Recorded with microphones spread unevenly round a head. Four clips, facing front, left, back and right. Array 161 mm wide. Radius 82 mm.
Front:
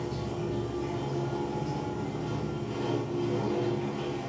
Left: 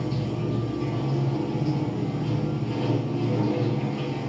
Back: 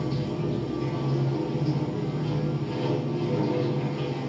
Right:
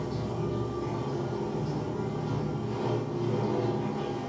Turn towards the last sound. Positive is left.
turn(degrees=125)